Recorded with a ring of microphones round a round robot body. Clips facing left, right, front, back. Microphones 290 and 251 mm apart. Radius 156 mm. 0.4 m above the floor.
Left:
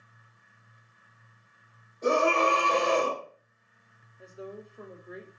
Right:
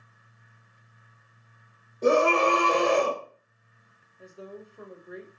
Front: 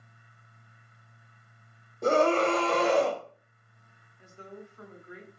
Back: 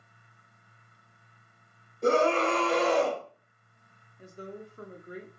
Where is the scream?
45° right, 1.8 m; by 3.2 s 75° right, 1.9 m.